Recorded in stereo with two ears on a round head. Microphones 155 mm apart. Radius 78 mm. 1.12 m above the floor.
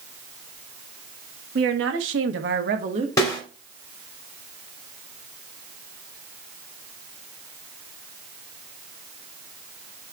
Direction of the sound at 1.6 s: 75° right (ahead or behind).